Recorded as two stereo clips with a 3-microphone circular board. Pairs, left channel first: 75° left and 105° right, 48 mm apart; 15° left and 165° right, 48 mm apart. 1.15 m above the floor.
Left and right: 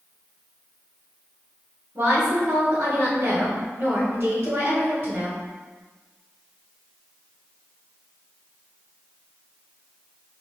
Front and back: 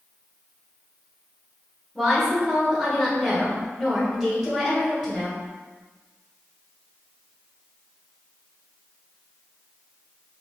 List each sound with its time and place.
1.9 s a woman speaking: 75° right, 1.3 m